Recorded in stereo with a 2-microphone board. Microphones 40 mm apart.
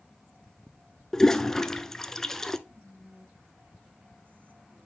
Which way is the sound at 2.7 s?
50° right (ahead or behind).